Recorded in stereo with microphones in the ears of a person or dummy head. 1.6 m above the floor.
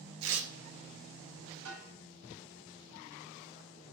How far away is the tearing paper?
About 0.6 m.